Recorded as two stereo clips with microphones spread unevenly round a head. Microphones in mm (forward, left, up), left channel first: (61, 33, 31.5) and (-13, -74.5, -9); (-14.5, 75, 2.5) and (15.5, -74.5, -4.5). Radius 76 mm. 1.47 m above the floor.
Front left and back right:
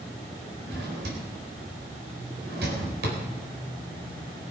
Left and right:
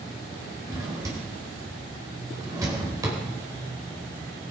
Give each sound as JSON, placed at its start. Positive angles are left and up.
{"t": 0.7, "sound": "a drawer", "azimuth_deg": -150, "distance_m": 4.0}